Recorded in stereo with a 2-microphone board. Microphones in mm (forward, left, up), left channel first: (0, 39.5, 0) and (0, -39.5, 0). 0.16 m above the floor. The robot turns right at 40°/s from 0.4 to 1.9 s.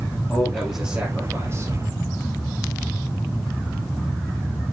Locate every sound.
0.3 s a man speaking: 175° left, 3 m; by 1.7 s 130° right, 3 m